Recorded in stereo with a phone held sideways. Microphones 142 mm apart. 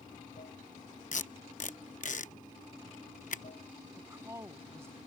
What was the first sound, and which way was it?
Running water, 65° left (ahead or behind).